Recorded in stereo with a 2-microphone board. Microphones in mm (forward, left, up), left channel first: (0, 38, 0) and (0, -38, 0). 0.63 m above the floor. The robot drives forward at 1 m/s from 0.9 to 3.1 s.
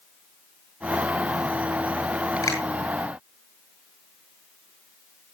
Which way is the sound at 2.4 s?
50° left (ahead or behind).